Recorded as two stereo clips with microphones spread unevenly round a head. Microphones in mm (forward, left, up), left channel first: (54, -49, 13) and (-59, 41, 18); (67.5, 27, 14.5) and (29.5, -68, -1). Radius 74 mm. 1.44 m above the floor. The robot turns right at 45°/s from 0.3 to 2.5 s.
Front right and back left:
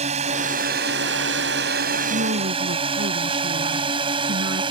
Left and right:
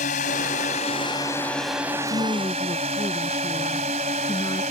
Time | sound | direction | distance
0.0 | a drone | 95° left | ?
2.1 | a woman speaking | 120° left | ?